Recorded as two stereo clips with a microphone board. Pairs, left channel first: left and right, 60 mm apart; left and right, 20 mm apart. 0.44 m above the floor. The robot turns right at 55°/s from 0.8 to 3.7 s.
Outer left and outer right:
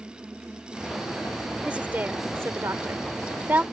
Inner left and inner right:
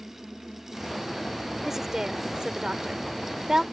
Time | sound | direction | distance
1.6 | a woman speaking | 15° right (ahead or behind) | ?